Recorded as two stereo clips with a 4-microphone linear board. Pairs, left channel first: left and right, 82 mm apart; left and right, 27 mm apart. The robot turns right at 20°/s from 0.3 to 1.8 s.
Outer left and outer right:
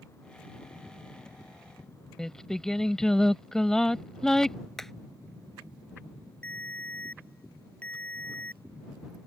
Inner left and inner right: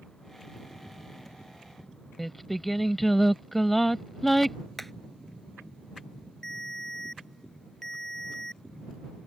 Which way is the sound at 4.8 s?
5° left (ahead or behind).